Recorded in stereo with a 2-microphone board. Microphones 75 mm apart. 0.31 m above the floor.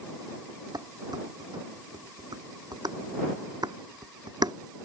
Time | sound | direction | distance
0.7 | dishes clattering | 70° right (ahead or behind) | ?